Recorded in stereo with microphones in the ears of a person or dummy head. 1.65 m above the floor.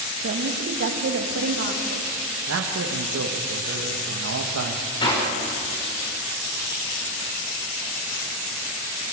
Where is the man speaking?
75° right (ahead or behind), 1.9 m.